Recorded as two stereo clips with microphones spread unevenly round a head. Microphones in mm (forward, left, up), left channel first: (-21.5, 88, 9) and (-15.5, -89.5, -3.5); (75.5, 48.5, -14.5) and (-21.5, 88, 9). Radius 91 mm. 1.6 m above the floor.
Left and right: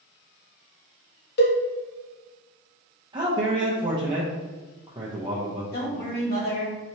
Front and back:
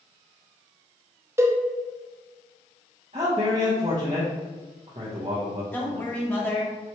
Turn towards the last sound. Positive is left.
turn(degrees=50)